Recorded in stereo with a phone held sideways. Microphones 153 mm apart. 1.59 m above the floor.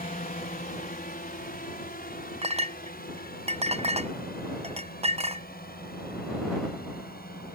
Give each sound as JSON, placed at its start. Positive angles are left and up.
{"t": 0.0, "sound": "a drone", "side_deg": 65}
{"t": 2.4, "sound": "a clink", "side_deg": -40}